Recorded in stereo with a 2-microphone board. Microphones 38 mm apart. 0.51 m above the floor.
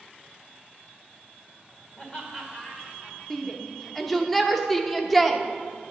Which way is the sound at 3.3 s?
Centre (ahead or behind).